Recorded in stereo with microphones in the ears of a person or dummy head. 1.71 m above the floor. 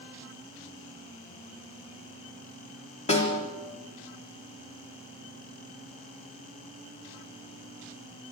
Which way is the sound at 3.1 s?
35° left (ahead or behind).